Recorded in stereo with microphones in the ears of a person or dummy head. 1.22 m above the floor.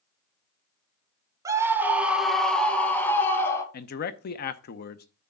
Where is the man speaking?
50° left (ahead or behind), 0.7 m.